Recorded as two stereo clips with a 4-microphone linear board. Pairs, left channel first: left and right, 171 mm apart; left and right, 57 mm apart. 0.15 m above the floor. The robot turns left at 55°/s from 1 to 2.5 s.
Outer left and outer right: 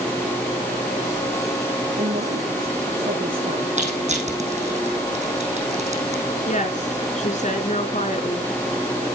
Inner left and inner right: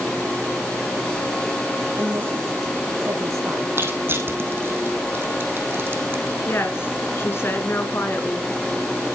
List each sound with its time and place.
2.0 s a woman speaking: 70° right (ahead or behind), 4.5 m; by 3.7 s 60° right (ahead or behind), 4.5 m
3.8 s crushing: 45° right (ahead or behind), 4.5 m
6.5 s a woman speaking: 45° left (ahead or behind), 1.9 m